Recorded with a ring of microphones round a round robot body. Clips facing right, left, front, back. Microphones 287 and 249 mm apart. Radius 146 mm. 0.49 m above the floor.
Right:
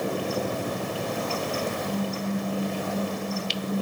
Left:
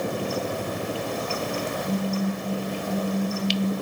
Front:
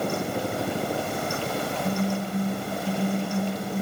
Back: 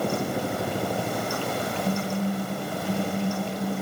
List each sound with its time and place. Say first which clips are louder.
1.8 s a phone buzzing: left 3 dB, back 1 dB; 20° right, 3.5 m